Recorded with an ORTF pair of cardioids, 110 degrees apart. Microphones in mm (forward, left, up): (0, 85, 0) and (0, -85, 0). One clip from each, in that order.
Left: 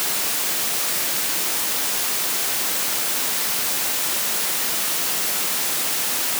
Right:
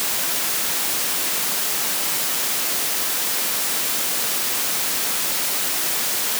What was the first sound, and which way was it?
Only background noise.